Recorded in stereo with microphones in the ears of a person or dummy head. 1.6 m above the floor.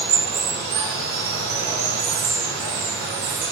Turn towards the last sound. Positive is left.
turn(degrees=-70)  # may be behind; listen again after turning